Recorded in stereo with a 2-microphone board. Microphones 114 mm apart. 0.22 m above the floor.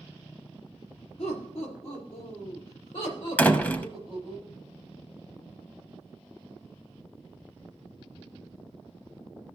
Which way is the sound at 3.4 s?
15° left (ahead or behind).